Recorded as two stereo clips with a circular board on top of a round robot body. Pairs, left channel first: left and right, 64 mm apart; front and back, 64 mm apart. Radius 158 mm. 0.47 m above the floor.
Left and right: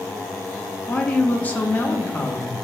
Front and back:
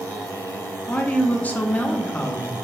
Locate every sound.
0.9 s a woman speaking: 45° left, 0.9 m